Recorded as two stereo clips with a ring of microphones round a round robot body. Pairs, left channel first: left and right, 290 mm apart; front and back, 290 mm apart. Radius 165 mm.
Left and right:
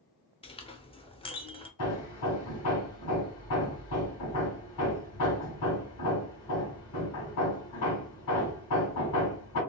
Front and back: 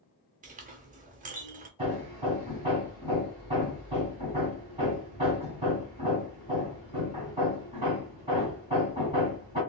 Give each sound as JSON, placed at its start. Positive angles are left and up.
{"t": 0.4, "sound": "a clink", "azimuth_deg": 145, "distance_m": 0.6}
{"t": 1.8, "sound": "hammering", "azimuth_deg": 110, "distance_m": 1.9}